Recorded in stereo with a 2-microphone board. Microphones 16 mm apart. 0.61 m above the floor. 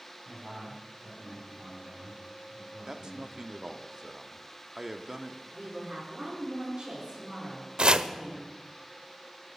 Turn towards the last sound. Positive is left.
turn(degrees=-70)  # may be behind; listen again after turning